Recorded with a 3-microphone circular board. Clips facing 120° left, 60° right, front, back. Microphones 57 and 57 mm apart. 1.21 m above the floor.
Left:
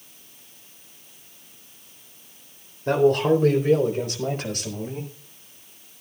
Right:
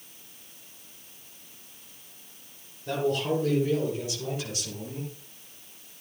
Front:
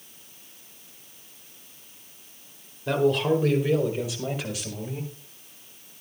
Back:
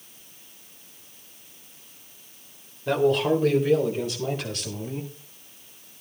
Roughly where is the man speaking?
Left.